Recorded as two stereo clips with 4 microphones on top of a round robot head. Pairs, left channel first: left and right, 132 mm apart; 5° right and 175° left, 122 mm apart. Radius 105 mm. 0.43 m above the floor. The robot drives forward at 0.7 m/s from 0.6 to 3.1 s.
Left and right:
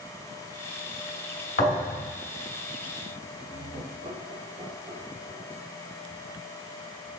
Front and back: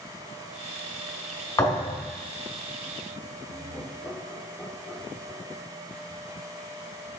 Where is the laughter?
65° right, 1.9 m.